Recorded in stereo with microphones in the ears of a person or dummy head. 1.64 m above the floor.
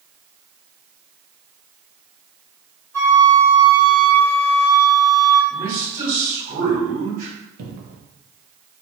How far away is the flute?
About 1.7 m.